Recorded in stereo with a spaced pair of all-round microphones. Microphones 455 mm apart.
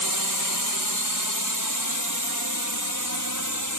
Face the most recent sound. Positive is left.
turn(degrees=-40)  # may be behind; listen again after turning